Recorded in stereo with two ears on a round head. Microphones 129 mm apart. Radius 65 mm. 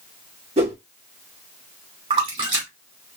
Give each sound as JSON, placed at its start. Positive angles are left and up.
{"t": 0.6, "sound": "a whoosh", "side_deg": -45, "distance_m": 1.8}
{"t": 2.1, "sound": "a splash", "side_deg": -40, "distance_m": 2.0}